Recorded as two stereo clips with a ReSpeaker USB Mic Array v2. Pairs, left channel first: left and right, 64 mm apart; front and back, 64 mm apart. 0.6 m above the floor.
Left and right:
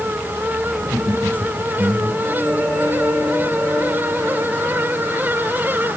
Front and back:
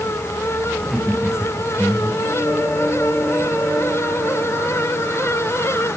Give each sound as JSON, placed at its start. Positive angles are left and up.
{"t": 0.8, "sound": "laughter", "azimuth_deg": -115, "distance_m": 3.0}